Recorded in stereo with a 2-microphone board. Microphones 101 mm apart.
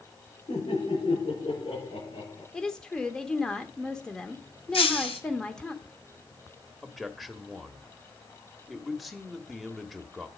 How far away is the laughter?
About 7 m.